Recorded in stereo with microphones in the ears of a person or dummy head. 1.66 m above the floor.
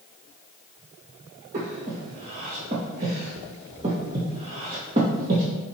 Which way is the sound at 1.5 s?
15° right (ahead or behind).